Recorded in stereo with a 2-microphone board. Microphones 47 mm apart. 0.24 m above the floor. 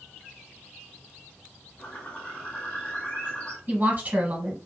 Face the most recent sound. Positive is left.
turn(degrees=-35)  # may be behind; listen again after turning